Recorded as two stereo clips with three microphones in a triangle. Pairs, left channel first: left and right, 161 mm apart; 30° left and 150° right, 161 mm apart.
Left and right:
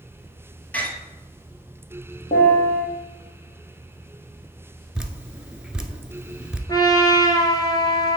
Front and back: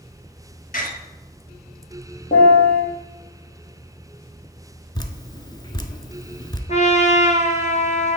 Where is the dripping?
10° right, 0.7 m.